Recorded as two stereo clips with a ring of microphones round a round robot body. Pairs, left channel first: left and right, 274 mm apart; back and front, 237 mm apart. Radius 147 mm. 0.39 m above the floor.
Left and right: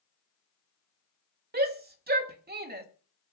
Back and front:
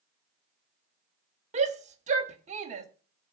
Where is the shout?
50° right, 1.3 m.